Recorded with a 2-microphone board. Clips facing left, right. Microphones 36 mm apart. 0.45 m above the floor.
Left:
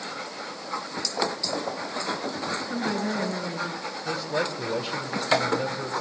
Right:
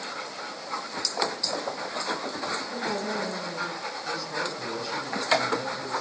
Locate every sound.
2.5 s a woman speaking: 40° left (ahead or behind), 5.5 m
4.0 s a man speaking: 55° left (ahead or behind), 3 m